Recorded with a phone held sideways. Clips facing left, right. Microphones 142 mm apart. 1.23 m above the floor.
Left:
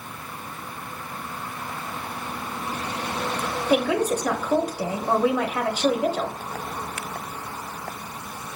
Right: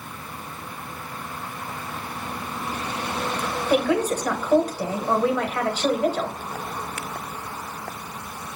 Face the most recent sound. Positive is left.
turn(degrees=10)  # may be behind; listen again after turning